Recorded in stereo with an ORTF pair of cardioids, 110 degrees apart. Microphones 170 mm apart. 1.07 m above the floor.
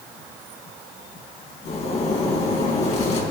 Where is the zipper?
40° left, 4 m.